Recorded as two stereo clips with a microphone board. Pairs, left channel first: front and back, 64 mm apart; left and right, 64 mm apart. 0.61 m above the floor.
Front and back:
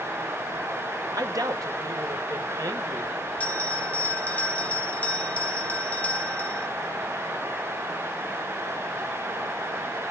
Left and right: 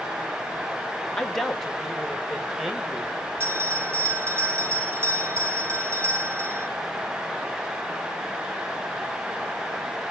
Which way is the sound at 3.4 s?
60° right.